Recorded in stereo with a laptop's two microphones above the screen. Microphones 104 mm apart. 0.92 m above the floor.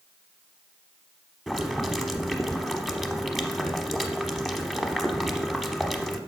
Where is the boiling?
Centre (ahead or behind), 0.9 m.